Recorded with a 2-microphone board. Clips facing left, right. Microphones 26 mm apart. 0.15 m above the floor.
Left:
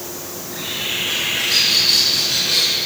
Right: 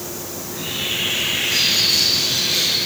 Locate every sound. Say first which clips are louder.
0.3 s a bird: even; 50° left (ahead or behind), 8.5 m